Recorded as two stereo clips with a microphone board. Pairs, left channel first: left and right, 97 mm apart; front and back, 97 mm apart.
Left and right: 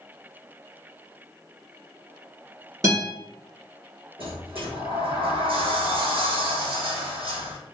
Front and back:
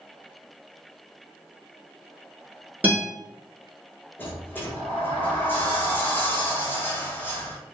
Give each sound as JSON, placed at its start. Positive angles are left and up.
{"t": 2.8, "sound": "a guitar", "azimuth_deg": -115, "distance_m": 1.4}
{"t": 4.2, "sound": "a sliding door", "azimuth_deg": -70, "distance_m": 1.1}